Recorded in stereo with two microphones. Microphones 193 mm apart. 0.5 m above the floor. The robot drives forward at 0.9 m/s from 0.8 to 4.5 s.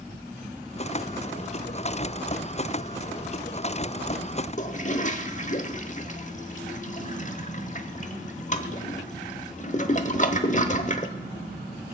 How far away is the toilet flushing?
About 1.1 m.